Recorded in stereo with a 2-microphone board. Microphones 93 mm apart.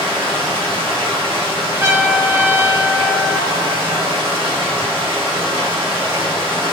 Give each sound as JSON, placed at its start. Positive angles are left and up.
{"t": 0.0, "sound": "running water", "side_deg": -75, "distance_m": 1.1}
{"t": 1.8, "sound": "a trumpet", "side_deg": -30, "distance_m": 0.9}